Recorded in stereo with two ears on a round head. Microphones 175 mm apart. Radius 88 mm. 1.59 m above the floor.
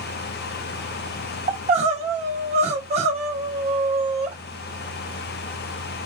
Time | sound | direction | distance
1.5 | crying | 35° right (ahead or behind) | 1.5 m